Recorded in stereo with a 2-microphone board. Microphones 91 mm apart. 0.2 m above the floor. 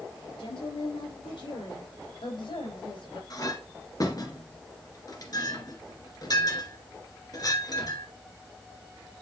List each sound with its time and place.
0.4 s a woman speaking: 70° left (ahead or behind), 5 m; by 3.2 s 60° left (ahead or behind), 4.5 m
3.3 s a clink: 40° left (ahead or behind), 1.9 m